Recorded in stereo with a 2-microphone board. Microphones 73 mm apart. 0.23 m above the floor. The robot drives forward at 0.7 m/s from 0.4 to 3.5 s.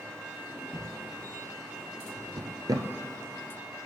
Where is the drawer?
45° right (ahead or behind), 1.3 m; by 2.9 s 55° right (ahead or behind), 1.2 m.